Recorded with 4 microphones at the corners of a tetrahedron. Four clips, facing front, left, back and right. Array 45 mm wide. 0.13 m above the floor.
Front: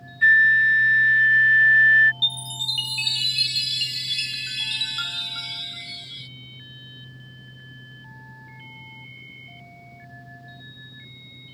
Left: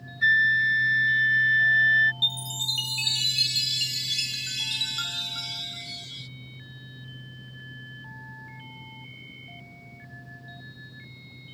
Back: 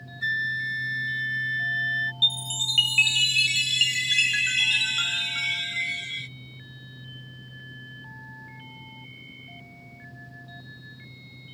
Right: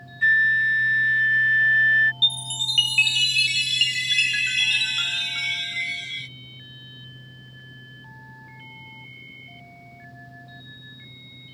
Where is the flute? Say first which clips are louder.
Right 2 dB, front 12 dB; 30° right.